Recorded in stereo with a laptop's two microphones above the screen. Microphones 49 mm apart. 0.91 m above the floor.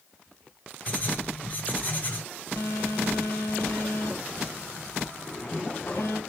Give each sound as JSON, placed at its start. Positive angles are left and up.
{"t": 0.9, "sound": "writing", "side_deg": 40, "distance_m": 1.7}
{"t": 2.6, "sound": "a phone buzzing", "side_deg": 65, "distance_m": 2.5}
{"t": 5.2, "sound": "a zipper", "side_deg": 25, "distance_m": 1.9}